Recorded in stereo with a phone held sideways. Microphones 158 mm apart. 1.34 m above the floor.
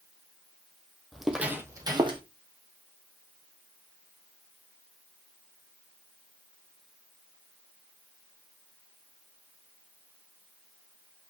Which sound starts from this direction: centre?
Footsteps, at 1.1 s.